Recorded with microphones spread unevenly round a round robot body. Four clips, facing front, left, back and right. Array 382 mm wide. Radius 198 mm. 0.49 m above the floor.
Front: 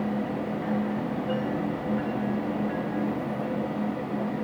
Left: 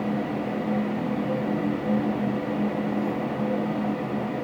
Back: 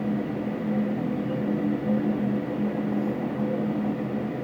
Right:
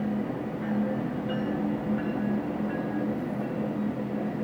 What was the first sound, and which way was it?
Only background noise.